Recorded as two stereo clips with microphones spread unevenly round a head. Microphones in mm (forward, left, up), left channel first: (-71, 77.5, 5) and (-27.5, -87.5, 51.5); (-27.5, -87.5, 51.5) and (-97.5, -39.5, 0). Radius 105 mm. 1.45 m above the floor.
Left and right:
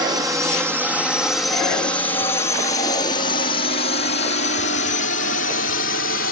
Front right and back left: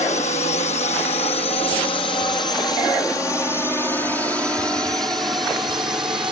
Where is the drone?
Straight ahead; by 6.3 s 70° left.